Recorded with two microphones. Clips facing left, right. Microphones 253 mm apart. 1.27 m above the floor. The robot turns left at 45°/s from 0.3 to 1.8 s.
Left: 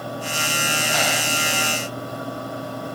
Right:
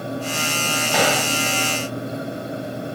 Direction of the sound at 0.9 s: 75° right (ahead or behind).